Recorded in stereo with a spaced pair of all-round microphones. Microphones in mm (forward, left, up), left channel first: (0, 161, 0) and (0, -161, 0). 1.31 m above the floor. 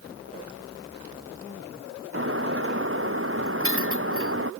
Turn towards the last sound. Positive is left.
turn(degrees=-40)  # may be behind; listen again after turning